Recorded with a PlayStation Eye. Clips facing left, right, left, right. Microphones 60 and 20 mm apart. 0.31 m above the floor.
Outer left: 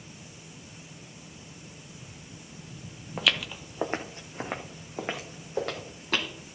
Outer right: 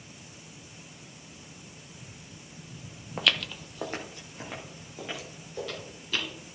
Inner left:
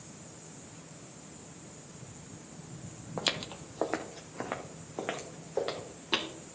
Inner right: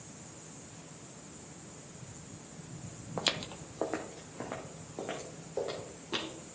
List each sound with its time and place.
3.2 s footsteps: 5° right (ahead or behind), 0.7 m; by 6.3 s 60° left (ahead or behind), 2.5 m